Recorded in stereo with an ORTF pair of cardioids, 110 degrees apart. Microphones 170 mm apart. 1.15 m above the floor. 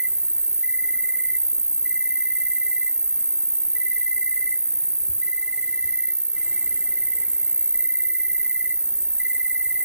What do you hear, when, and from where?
0.0 s an insect: 5° right, 1.6 m